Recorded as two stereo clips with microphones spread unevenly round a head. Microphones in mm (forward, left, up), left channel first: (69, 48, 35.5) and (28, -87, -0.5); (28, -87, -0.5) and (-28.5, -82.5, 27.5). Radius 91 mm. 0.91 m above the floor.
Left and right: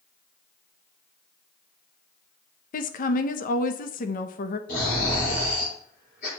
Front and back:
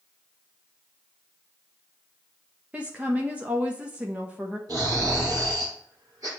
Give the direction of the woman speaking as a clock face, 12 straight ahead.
9 o'clock.